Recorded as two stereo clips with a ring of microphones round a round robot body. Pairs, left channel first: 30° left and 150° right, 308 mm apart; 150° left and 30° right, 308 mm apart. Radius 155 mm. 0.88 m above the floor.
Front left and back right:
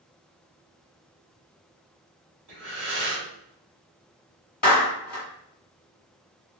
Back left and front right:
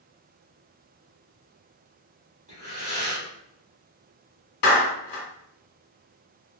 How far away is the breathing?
About 1.6 m.